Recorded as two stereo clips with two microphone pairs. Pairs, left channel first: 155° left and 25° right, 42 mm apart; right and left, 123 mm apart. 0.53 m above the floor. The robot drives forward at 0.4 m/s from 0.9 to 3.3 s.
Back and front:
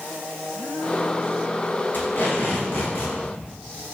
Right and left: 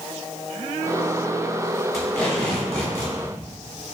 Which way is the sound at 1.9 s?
175° right.